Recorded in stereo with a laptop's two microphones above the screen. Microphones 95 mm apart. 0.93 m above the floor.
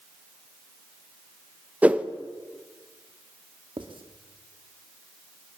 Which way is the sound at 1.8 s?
15° right (ahead or behind).